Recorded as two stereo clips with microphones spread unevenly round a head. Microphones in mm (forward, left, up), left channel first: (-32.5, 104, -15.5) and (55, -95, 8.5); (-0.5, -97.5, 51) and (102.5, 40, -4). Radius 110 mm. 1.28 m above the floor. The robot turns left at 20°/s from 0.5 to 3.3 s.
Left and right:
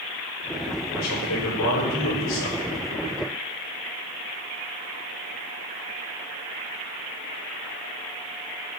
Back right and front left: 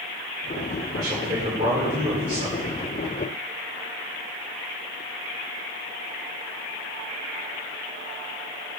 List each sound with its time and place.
0.9 s a man speaking: 140° left, 5 m; by 2.8 s 105° left, 5 m